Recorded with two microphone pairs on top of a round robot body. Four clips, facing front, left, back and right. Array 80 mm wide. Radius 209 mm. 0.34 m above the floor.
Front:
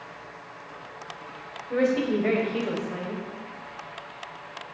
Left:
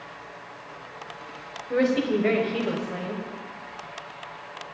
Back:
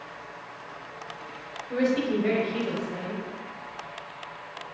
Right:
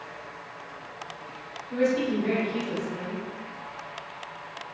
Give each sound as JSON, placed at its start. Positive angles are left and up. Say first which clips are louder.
{"t": 1.7, "sound": "a woman speaking", "louder": "left 2 dB, front 1 dB", "azimuth_deg": 60, "distance_m": 3.0}